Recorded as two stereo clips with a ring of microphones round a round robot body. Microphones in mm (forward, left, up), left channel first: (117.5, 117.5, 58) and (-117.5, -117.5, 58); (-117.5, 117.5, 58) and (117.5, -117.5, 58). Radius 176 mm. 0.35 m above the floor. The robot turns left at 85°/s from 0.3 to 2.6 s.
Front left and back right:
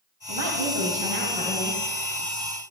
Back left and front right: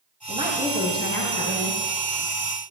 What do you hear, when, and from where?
0.3 s a woman speaking: 110° right, 2.5 m; by 1.8 s 120° left, 2.5 m